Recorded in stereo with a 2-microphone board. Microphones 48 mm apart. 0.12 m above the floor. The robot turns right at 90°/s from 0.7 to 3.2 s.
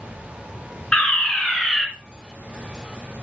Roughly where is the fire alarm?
Centre.